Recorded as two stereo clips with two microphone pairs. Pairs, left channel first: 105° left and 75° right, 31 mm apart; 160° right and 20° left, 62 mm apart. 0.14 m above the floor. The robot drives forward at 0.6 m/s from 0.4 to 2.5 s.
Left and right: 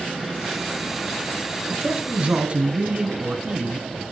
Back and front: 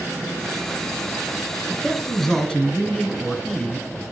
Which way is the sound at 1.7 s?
60° right.